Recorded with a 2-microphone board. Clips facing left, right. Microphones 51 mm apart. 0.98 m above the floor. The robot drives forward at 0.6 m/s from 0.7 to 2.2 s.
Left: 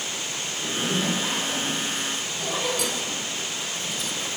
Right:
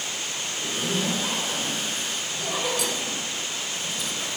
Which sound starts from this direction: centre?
A zipper, at 0.6 s.